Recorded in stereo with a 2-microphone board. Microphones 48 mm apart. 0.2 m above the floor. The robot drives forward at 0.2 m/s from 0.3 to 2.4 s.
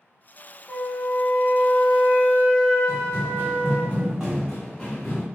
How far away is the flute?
About 0.7 m.